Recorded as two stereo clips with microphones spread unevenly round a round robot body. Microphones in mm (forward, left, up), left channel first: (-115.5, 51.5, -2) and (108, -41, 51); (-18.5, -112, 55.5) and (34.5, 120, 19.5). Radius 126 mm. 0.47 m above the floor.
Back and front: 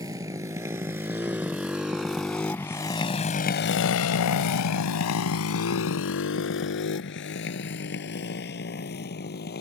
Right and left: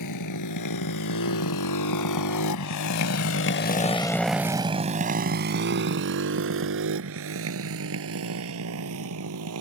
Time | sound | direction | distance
0.0 | a motorcycle | 100° right | ?